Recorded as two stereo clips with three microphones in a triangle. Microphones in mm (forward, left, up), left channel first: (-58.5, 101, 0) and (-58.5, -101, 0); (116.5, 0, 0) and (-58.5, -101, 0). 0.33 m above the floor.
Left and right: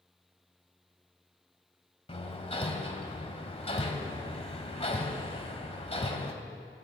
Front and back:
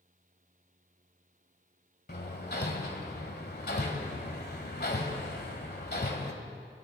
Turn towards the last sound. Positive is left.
turn(degrees=40)